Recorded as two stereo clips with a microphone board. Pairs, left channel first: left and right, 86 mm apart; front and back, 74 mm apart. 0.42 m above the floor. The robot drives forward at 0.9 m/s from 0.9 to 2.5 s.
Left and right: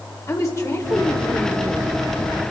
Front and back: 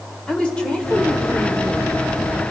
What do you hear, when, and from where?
0.3 s a woman speaking: 65° left, 1.4 m; by 1.9 s 120° left, 1.5 m